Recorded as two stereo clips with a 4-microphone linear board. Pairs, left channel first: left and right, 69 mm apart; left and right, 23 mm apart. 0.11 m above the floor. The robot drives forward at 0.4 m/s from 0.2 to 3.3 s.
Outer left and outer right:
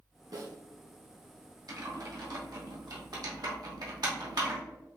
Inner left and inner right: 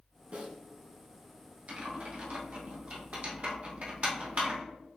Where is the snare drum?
65° right (ahead or behind), 1.8 m.